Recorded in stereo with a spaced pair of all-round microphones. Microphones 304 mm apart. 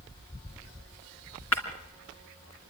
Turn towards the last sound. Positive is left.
turn(degrees=60)  # may be behind; listen again after turning